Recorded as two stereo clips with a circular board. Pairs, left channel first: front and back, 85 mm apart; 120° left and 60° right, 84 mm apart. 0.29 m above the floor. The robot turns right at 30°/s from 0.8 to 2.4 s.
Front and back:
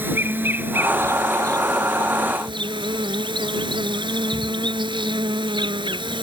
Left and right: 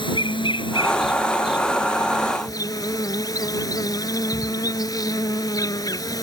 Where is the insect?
115° left; by 6.2 s 160° left.